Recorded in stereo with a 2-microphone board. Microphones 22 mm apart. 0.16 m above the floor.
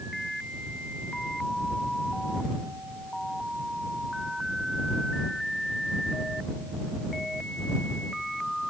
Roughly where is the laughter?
I don't hear laughter.